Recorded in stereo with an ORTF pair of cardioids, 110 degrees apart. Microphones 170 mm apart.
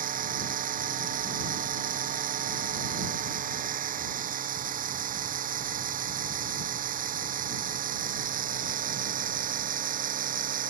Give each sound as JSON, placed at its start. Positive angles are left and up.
{"t": 0.0, "sound": "a machine running", "azimuth_deg": -55}